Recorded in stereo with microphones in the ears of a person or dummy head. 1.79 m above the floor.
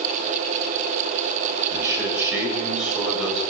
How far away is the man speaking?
About 7 m.